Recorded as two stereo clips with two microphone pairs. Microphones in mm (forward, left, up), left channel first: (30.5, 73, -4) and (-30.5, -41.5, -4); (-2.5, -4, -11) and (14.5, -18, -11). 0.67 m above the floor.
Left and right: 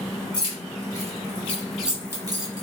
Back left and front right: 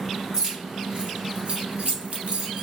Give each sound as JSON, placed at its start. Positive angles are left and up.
{"t": 0.3, "sound": "keys jangling", "azimuth_deg": 10, "distance_m": 1.1}